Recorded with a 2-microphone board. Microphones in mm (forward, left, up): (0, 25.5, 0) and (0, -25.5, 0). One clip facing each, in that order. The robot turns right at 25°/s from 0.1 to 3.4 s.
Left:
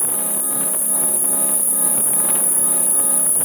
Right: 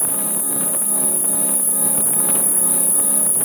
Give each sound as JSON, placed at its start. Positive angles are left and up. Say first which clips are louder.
{"t": 0.0, "sound": "an insect", "louder": "right 1 dB", "azimuth_deg": 75, "distance_m": 1.6}